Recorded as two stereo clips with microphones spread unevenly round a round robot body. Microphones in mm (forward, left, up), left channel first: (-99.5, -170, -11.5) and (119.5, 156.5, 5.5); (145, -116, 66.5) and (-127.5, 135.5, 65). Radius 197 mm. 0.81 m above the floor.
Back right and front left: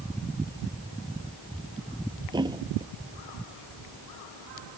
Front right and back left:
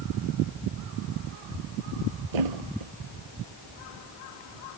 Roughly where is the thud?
Behind left.